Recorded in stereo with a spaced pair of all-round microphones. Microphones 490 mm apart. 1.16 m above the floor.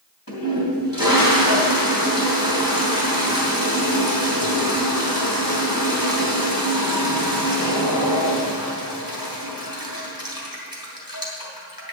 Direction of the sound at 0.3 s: 40° left (ahead or behind).